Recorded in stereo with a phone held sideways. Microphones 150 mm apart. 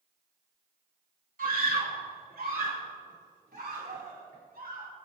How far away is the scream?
About 2.5 m.